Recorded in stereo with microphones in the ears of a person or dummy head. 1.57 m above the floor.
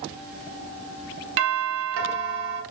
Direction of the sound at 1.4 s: 65° right (ahead or behind).